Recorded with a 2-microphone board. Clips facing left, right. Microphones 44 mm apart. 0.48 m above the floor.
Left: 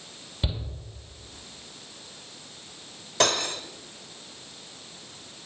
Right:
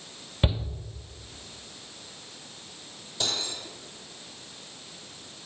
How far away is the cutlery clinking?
About 1.2 m.